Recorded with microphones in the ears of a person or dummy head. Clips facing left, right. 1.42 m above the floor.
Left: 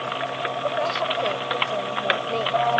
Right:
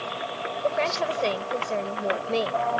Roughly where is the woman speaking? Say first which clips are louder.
Right 1 dB; right.